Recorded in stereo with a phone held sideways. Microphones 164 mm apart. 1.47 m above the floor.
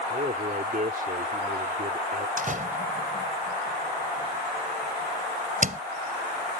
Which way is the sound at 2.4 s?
50° right (ahead or behind).